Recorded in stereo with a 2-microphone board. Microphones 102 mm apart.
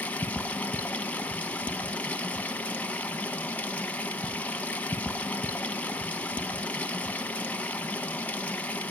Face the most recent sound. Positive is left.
turn(degrees=15)  # may be behind; listen again after turning